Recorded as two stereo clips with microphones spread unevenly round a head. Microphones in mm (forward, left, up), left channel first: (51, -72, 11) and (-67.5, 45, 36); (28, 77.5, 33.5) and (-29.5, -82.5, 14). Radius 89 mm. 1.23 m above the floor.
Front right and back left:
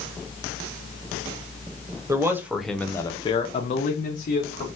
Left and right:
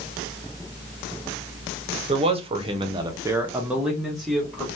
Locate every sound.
2.1 s a man speaking: 150° right, 0.8 m; by 4.7 s 20° right, 1.2 m